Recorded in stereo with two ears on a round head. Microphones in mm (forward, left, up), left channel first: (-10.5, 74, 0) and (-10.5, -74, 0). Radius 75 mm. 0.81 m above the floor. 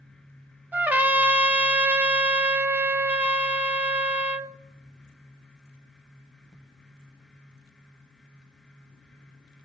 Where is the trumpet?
10° right (ahead or behind), 0.5 m.